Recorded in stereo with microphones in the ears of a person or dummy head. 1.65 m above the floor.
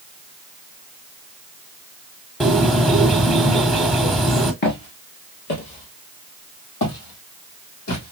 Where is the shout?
I don't hear a shout.